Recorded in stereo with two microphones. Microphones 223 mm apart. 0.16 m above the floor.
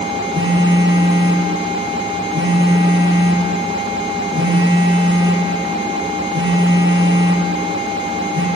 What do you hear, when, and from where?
0.3 s a phone buzzing: 55° right (ahead or behind), 4 m